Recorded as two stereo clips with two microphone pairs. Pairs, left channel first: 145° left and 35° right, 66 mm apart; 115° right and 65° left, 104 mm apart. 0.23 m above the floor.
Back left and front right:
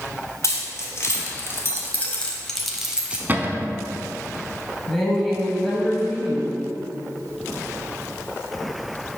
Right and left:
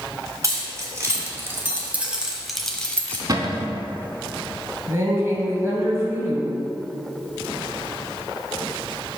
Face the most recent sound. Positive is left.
turn(degrees=55)